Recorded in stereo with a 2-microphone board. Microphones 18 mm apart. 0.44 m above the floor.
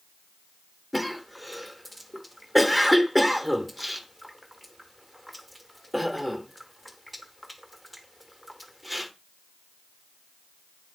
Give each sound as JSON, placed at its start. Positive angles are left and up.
{"t": 0.9, "sound": "a cough", "side_deg": 0, "distance_m": 0.9}